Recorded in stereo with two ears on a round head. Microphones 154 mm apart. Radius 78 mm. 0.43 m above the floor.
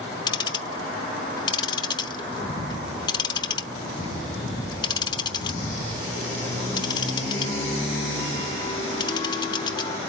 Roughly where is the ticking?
Left.